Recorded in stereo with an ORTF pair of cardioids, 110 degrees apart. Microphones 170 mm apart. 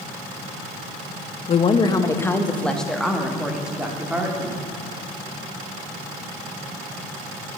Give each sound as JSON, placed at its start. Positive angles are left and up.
{"t": 1.5, "sound": "a woman speaking", "azimuth_deg": 45, "distance_m": 0.9}